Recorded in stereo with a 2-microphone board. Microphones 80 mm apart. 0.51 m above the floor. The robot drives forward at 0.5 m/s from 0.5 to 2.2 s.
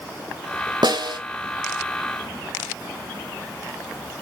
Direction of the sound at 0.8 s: 70° right (ahead or behind).